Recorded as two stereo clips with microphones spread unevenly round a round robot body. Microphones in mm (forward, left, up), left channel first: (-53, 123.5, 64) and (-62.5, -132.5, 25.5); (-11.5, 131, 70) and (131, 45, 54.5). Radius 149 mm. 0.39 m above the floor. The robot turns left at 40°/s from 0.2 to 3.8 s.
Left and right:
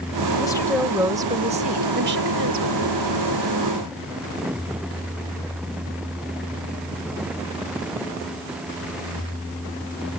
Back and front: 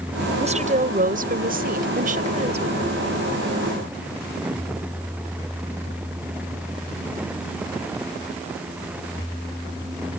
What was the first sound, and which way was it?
A woman speaking, 10° left.